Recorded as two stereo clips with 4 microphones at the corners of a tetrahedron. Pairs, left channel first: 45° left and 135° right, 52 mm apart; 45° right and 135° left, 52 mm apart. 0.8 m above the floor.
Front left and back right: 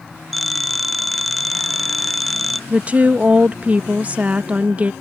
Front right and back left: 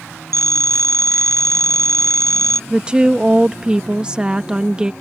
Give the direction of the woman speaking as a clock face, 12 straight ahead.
6 o'clock.